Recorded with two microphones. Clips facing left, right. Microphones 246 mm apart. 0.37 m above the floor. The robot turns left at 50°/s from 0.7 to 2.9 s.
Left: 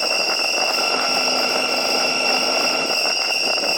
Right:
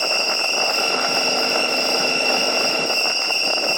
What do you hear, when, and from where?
0.0 s an insect: 60° left, 1.7 m; by 3.8 s 50° right, 1.7 m